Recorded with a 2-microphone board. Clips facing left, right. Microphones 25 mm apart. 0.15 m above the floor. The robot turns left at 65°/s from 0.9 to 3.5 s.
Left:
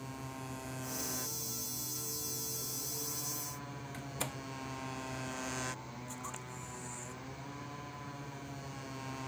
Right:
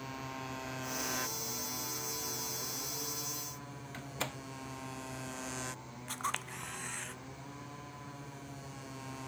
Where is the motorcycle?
20° right; by 9.3 s 170° left.